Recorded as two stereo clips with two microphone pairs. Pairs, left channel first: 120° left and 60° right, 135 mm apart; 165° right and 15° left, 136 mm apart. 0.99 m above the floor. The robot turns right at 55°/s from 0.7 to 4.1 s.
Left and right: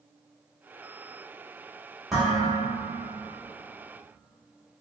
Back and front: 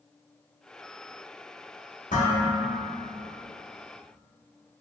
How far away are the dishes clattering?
About 0.9 m.